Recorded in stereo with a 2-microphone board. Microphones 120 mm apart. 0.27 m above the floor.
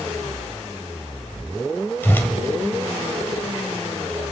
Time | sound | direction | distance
2.0 | a whoosh | 15° left (ahead or behind) | 1.6 m